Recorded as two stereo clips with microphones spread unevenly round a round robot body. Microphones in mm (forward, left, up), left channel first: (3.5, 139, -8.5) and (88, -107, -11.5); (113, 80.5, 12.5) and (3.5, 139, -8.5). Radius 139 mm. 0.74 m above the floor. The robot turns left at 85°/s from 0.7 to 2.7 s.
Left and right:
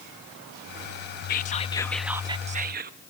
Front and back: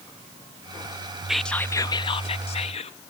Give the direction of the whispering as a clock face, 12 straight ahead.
9 o'clock.